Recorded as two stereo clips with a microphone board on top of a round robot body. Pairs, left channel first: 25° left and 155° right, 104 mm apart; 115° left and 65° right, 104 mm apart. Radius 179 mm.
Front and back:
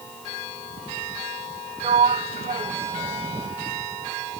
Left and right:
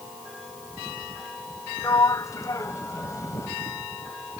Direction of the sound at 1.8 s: 175° left.